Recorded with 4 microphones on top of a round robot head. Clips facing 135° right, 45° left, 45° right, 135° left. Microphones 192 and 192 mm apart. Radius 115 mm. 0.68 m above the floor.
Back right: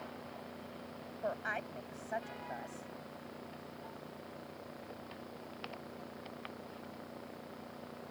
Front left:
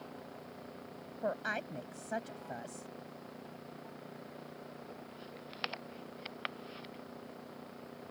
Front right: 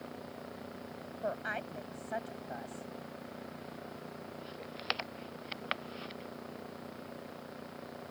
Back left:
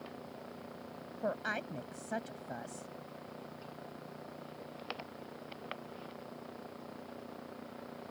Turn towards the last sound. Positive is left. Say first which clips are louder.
# front left 2 dB, back left 1 dB
turn(degrees=90)